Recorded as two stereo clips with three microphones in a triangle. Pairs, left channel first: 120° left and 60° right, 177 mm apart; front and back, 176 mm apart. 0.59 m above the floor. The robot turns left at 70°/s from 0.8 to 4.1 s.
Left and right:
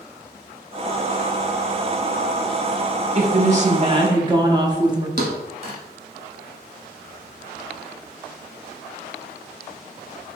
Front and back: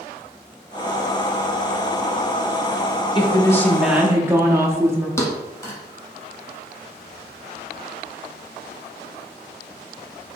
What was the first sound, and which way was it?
A woman speaking, 45° right.